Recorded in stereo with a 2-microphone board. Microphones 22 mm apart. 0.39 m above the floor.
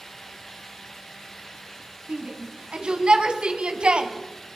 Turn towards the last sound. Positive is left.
turn(degrees=-60)  # may be behind; listen again after turning